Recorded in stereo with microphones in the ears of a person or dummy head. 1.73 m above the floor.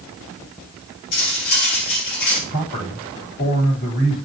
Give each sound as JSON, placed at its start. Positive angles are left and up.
{"t": 1.1, "sound": "cutlery clinking", "side_deg": 50, "distance_m": 2.5}
{"t": 2.5, "sound": "a man speaking", "side_deg": 65, "distance_m": 9.0}